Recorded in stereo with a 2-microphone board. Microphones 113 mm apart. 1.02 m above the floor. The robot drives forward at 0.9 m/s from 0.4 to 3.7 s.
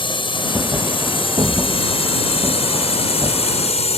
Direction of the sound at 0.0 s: 45° left (ahead or behind).